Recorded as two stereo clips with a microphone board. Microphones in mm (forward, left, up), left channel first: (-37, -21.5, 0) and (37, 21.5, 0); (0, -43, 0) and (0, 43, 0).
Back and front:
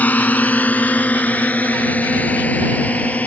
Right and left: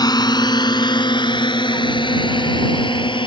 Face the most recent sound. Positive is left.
turn(degrees=-75)